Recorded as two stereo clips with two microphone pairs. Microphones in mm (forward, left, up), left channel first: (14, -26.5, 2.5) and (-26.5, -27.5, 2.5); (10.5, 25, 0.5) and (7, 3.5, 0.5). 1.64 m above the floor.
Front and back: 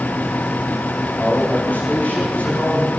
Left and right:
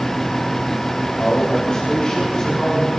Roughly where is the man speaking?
Ahead left.